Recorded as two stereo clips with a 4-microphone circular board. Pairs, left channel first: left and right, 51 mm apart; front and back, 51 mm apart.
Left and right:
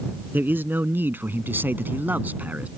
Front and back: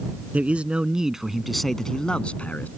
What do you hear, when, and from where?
0.3 s a man speaking: 125° right; by 2.7 s 45° right